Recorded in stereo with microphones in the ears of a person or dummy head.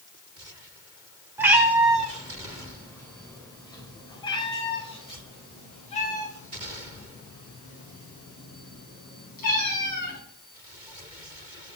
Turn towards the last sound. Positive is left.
turn(degrees=50)  # may be behind; listen again after turning